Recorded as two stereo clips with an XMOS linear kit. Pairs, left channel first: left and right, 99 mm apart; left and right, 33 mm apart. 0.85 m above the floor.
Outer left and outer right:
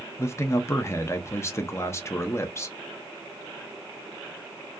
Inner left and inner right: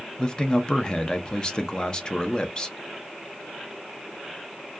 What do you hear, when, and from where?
0.2 s a man speaking: 25° left (ahead or behind), 0.5 m